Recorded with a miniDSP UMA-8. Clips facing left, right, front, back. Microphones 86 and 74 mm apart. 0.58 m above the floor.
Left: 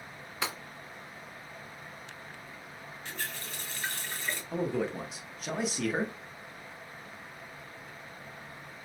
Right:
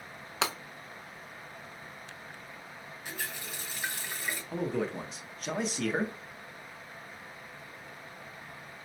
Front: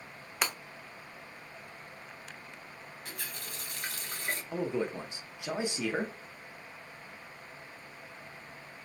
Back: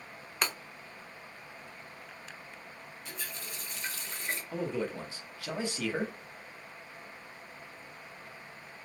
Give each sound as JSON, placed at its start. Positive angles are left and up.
{"t": 0.4, "sound": "breaking glass", "azimuth_deg": -85, "distance_m": 0.6}
{"t": 3.0, "sound": "a running tap", "azimuth_deg": -15, "distance_m": 1.1}
{"t": 4.5, "sound": "a man speaking", "azimuth_deg": 5, "distance_m": 0.6}